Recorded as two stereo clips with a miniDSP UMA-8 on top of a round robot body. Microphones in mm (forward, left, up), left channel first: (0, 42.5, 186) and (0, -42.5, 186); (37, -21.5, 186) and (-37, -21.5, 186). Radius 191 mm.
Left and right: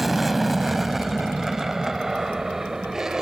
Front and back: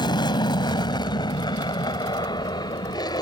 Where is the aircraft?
Straight ahead; by 3.2 s 5° right.